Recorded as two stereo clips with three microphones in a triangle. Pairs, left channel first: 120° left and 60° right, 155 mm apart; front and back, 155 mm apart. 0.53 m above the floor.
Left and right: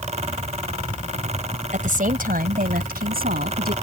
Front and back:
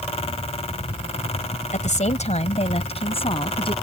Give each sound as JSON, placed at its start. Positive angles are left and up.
{"t": 1.7, "sound": "a woman speaking", "azimuth_deg": -30}